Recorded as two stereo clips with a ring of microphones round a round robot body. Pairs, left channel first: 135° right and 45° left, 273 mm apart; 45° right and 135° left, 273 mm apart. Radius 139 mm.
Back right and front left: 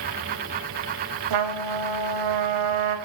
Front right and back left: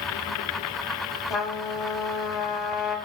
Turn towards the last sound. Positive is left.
turn(degrees=45)